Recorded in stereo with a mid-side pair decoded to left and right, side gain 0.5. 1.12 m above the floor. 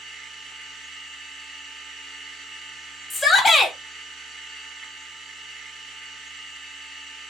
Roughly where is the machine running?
Ahead right.